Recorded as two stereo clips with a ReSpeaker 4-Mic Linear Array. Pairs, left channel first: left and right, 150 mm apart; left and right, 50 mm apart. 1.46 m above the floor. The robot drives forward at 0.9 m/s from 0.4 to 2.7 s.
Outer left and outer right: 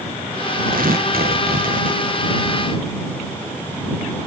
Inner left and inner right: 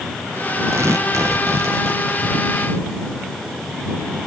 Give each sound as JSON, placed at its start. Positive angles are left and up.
{"t": 0.7, "sound": "tearing paper", "side_deg": -70}